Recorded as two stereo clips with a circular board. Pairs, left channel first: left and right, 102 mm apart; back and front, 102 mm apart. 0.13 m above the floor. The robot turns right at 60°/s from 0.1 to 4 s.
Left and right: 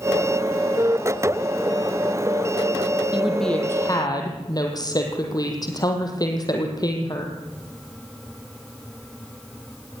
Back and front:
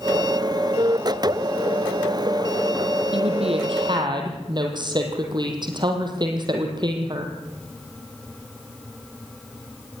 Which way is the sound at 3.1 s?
10° right.